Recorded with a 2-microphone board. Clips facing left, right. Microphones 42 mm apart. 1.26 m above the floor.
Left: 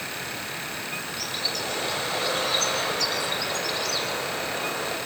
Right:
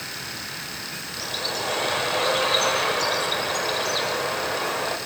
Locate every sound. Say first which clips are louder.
1.2 s a bird: right 5 dB; 40° right (ahead or behind), 5 m